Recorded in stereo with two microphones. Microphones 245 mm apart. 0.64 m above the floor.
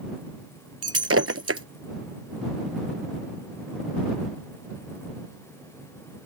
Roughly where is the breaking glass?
Right.